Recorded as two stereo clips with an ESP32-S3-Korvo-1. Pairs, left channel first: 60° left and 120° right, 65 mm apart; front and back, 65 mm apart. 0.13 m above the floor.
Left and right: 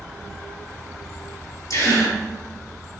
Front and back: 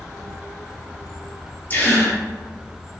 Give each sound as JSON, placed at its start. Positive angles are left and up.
{"t": 1.7, "sound": "a gasp", "azimuth_deg": 55, "distance_m": 3.0}